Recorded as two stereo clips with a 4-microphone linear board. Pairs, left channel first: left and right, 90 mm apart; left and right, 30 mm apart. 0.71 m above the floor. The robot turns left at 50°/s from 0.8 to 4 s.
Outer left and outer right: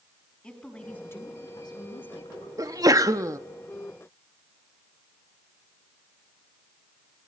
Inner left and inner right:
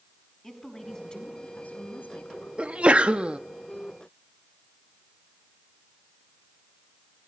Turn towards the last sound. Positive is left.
turn(degrees=-150)